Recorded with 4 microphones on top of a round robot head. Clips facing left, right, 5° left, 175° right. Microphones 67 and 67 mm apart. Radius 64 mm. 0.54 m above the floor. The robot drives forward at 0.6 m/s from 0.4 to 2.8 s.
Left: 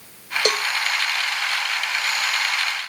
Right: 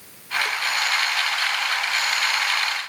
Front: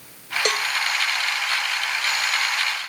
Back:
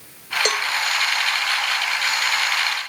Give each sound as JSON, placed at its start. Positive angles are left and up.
{"t": 0.5, "sound": "a cowbell", "azimuth_deg": 100}